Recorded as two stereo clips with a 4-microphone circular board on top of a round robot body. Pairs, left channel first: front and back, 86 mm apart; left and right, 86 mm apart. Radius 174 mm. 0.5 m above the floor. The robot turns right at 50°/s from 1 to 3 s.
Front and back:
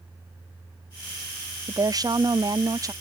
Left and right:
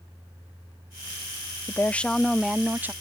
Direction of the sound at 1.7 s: 150° left.